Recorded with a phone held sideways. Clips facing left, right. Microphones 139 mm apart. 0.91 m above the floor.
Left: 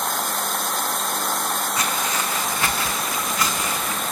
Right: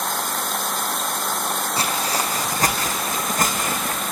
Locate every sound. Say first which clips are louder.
1.8 s footsteps: right 1 dB; 30° right (ahead or behind), 2.5 m; by 4.0 s 55° right (ahead or behind), 3 m